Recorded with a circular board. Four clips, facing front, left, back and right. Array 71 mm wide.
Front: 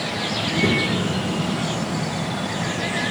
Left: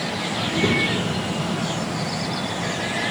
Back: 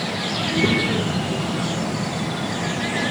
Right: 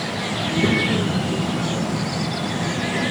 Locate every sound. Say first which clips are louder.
0.4 s a child speaking: right 2 dB, back 1 dB; 80° left, 0.6 m; by 3.1 s 110° right, 2 m